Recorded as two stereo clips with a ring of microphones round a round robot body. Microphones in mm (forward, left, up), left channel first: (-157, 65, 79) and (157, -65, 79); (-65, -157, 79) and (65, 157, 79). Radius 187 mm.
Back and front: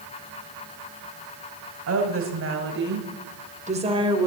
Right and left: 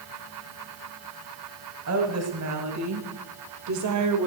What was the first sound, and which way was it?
A woman speaking, 25° left.